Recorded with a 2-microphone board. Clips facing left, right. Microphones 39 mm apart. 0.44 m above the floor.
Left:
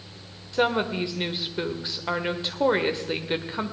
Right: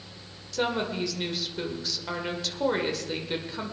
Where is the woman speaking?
25° left (ahead or behind), 1.3 m.